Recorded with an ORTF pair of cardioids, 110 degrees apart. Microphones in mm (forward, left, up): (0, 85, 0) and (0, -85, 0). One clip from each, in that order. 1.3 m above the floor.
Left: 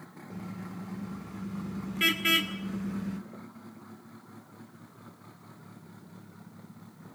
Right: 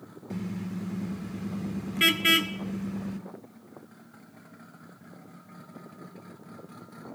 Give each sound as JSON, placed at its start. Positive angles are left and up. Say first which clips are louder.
{"t": 0.3, "sound": "a car horn", "louder": "right 6 dB", "azimuth_deg": -50, "distance_m": 2.0}